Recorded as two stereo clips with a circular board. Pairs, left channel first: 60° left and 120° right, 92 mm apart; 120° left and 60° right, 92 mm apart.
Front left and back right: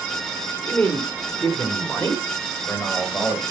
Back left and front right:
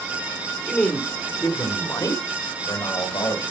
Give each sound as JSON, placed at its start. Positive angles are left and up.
{"t": 0.6, "sound": "a man speaking", "azimuth_deg": 45, "distance_m": 1.5}